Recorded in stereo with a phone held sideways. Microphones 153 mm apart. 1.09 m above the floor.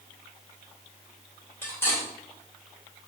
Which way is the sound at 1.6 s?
15° left (ahead or behind).